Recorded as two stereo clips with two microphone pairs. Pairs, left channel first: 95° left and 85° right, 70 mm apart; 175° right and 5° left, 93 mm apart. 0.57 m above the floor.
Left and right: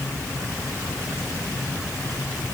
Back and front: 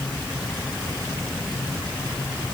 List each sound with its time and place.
Only background noise.